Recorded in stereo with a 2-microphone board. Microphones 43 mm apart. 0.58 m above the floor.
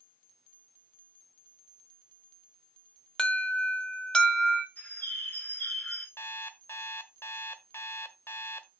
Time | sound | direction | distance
3.2 | an alarm | 20° left (ahead or behind) | 1.9 m
4.8 | a bird | 45° left (ahead or behind) | 5.5 m
6.2 | an alarm clock | 70° left (ahead or behind) | 1.1 m